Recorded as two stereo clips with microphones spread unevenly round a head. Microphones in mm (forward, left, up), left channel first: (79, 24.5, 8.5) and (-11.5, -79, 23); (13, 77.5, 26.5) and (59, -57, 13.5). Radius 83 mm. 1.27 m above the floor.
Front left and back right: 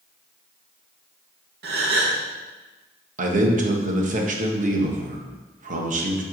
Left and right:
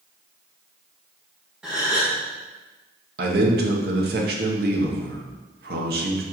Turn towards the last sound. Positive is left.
turn(degrees=-100)